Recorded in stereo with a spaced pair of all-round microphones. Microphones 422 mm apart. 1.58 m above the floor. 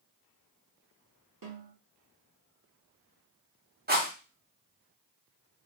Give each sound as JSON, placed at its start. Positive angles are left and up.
{"t": 1.4, "sound": "a snare drum", "side_deg": -50, "distance_m": 1.2}
{"t": 3.9, "sound": "a rattle", "side_deg": -20, "distance_m": 1.0}